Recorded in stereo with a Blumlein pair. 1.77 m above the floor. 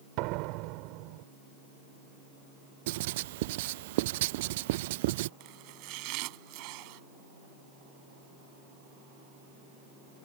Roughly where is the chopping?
Ahead right.